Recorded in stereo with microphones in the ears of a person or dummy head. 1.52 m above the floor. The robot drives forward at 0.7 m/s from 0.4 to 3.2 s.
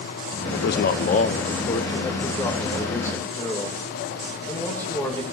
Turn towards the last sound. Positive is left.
turn(degrees=20)  # may be behind; listen again after turning